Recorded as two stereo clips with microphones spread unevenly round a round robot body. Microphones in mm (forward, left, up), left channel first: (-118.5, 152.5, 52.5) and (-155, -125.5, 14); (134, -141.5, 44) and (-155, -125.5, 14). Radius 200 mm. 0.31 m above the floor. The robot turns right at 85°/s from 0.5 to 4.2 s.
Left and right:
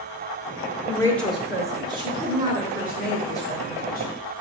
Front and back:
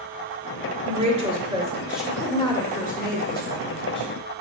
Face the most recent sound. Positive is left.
turn(degrees=80)